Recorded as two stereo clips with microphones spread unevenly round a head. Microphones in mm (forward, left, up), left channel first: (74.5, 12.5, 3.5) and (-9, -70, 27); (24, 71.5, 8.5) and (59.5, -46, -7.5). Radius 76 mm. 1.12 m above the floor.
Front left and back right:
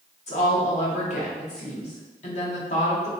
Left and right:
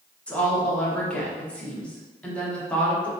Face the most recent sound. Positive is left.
turn(degrees=25)